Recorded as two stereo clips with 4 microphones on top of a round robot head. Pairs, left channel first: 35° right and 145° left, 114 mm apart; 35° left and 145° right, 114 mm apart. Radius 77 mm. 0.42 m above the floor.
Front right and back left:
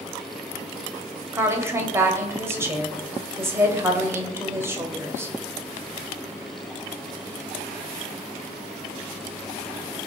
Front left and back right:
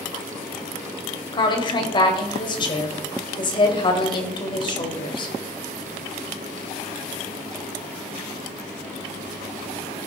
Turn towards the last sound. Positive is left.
turn(degrees=75)